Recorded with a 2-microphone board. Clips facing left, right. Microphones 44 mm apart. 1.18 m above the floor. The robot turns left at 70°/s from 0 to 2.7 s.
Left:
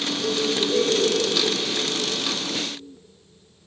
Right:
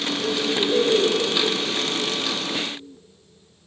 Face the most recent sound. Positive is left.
turn(degrees=-175)